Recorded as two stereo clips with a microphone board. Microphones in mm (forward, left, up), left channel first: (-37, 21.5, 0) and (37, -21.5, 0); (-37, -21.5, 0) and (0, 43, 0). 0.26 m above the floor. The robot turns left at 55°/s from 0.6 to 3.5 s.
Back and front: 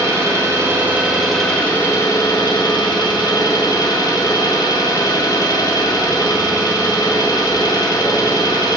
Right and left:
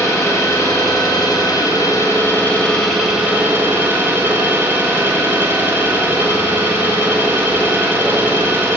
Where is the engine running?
80° right, 0.9 m; by 8.8 s 120° left, 0.9 m.